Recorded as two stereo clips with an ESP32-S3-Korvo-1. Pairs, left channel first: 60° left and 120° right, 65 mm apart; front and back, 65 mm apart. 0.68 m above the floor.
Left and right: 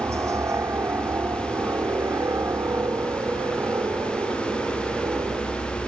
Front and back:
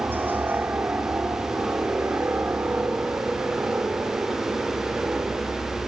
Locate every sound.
0.0 s a helicopter: 130° right; by 5.9 s 125° right